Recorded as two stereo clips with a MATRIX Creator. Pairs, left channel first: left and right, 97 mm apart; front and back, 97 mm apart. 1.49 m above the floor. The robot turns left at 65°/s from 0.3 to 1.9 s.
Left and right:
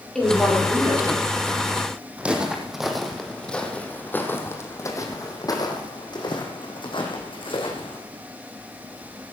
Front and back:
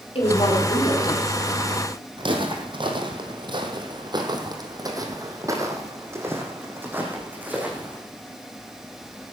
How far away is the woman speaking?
About 4.5 m.